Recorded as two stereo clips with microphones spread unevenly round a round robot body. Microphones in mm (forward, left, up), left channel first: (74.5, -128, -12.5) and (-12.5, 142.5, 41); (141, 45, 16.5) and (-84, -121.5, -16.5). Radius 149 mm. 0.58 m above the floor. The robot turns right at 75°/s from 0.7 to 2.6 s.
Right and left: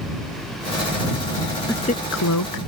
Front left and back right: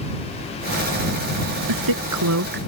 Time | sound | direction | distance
1.7 | a woman speaking | 155° right | ?